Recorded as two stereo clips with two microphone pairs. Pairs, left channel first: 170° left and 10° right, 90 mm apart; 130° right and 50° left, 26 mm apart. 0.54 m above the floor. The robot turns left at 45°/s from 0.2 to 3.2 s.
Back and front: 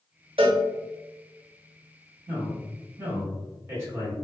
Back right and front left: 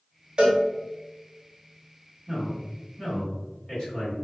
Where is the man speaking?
25° right, 1.9 m; by 4.1 s 70° right, 1.9 m.